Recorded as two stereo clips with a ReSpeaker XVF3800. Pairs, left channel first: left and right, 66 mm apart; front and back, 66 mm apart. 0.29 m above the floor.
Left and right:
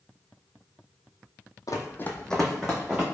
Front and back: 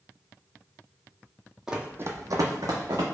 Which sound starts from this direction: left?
Running footsteps, at 1.7 s.